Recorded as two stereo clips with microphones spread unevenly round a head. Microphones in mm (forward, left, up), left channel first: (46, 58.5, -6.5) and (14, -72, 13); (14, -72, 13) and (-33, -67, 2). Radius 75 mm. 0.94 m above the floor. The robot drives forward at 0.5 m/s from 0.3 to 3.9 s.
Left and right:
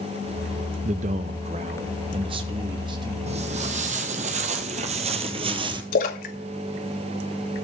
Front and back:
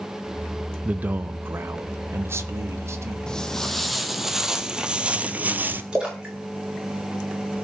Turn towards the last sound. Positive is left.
turn(degrees=100)